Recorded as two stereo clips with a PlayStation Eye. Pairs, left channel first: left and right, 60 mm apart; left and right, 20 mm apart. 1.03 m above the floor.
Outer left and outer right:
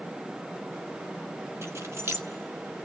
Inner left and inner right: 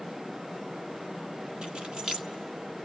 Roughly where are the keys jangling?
Right.